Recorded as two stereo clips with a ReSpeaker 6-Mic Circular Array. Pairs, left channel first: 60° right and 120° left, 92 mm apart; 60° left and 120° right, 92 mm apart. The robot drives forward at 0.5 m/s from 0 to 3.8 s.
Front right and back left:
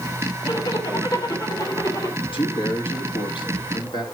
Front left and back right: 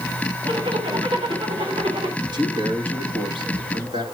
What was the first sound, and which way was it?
A zipper, 100° right.